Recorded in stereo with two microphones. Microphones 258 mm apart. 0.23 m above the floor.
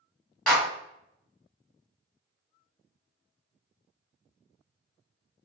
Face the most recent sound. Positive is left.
turn(degrees=5)  # may be behind; listen again after turning